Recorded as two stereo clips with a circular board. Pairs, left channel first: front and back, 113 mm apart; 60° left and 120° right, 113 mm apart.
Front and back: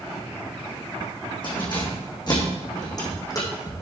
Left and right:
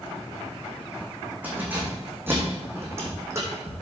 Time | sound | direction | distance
1.4 | keys jangling | 45° right | 5 m